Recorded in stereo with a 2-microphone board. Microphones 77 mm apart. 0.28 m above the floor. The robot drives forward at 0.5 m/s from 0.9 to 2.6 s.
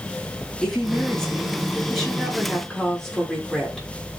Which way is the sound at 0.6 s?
5° left (ahead or behind).